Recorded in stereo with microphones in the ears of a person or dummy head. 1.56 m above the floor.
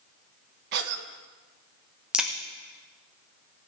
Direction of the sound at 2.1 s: Centre (ahead or behind).